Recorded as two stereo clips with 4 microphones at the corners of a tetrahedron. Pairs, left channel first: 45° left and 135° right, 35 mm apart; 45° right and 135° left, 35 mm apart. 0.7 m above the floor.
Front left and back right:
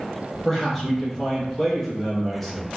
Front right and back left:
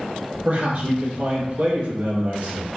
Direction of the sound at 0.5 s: 125° left.